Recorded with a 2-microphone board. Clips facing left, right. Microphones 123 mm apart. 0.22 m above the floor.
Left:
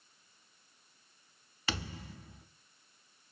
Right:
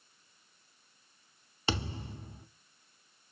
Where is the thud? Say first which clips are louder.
Right 5 dB; 30° right (ahead or behind), 0.6 m.